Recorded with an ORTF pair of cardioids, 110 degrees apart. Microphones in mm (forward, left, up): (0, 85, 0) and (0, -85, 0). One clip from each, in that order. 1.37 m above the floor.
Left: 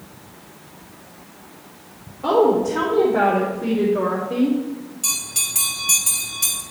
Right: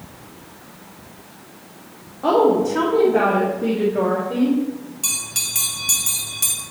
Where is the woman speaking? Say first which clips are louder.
Right 1 dB; 35° right, 2.5 m; by 4.6 s 10° left, 2.5 m.